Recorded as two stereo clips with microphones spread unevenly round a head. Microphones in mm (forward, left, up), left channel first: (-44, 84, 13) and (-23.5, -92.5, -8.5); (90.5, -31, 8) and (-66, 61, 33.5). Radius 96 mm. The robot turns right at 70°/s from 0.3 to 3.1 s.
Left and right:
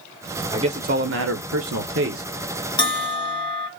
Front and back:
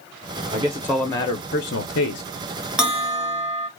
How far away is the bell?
About 1.2 m.